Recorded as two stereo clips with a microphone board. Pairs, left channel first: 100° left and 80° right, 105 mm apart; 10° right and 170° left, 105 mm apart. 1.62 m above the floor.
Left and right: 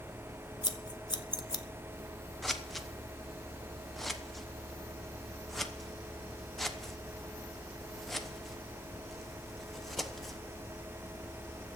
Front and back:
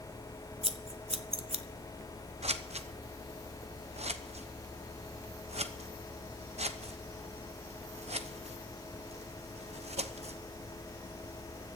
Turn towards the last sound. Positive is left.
turn(degrees=-170)